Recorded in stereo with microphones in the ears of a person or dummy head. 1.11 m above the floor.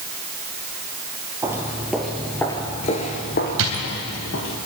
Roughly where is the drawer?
Right.